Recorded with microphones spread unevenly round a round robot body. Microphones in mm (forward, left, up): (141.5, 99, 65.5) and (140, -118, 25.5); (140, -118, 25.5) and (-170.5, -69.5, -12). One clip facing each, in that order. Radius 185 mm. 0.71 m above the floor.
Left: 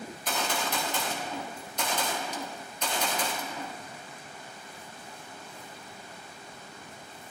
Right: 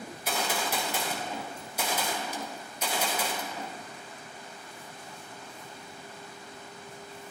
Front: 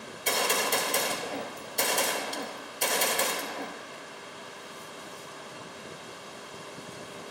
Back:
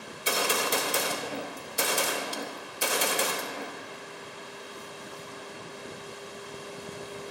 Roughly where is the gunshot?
Behind right.